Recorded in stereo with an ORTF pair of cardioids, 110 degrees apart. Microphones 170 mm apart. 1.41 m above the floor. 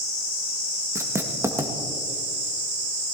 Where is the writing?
15° right, 1.8 m.